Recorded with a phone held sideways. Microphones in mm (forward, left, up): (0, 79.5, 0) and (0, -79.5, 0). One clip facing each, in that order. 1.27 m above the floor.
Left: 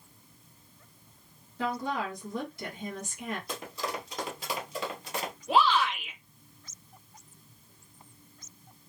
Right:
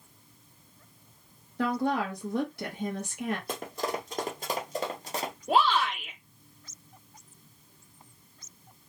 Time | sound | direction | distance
1.6 | a woman speaking | 65° right (ahead or behind) | 1.4 m
3.5 | running footsteps | 55° right (ahead or behind) | 2.0 m
5.5 | a shout | 50° right (ahead or behind) | 1.7 m